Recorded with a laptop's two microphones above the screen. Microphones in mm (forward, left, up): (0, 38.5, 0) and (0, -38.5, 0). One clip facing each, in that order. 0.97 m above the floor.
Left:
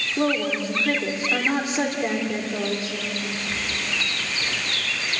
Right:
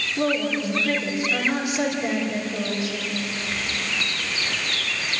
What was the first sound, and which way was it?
A woman speaking, 35° left (ahead or behind).